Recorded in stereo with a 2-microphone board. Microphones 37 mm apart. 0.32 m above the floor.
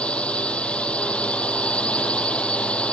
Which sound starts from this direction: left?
A drone, at 0.0 s.